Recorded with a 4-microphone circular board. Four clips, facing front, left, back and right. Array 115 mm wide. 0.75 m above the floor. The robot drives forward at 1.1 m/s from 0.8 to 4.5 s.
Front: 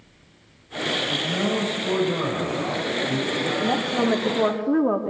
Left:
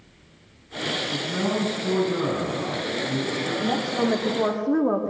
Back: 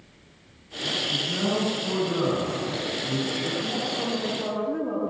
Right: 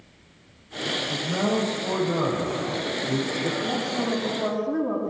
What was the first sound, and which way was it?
A man speaking, 55° right.